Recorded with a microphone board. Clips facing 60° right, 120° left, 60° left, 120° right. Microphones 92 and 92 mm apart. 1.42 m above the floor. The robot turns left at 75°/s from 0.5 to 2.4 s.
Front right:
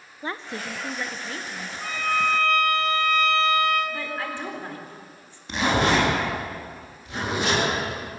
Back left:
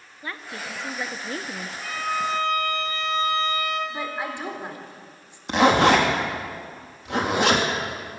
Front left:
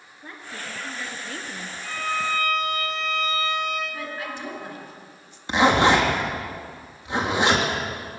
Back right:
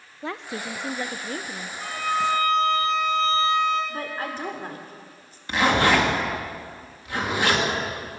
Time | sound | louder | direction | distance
0.2 | a woman speaking | front right 3 dB, back right 6 dB | 120° right | 0.8 m
1.8 | a violin | front right 2 dB, back right 4 dB | 125° right | 8.5 m
3.9 | a woman speaking | back left 1 dB, back right 2 dB | 165° right | 3.5 m
5.5 | a zipper | back left 5 dB, front left 2 dB | 125° left | 3 m